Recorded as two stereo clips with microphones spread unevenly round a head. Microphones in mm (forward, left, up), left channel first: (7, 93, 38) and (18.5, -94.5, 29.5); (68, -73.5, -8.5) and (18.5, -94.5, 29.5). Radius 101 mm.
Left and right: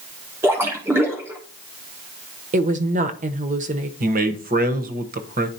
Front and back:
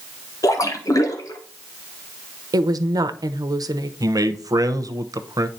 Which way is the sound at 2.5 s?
130° right.